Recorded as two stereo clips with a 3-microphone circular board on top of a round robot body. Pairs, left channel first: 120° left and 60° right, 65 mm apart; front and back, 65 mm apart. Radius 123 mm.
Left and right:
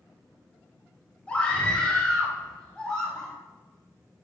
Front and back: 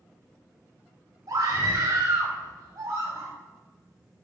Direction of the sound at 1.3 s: 170° right.